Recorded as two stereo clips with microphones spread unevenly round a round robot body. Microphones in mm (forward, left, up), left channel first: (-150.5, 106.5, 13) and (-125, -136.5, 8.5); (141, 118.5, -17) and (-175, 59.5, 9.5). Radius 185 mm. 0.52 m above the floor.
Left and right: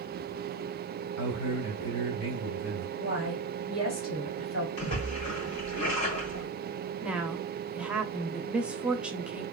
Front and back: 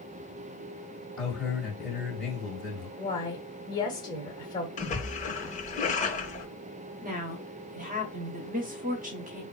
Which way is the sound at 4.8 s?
80° left.